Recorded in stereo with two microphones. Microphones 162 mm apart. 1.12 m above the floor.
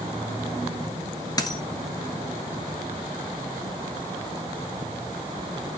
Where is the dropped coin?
25° left (ahead or behind), 1.7 m.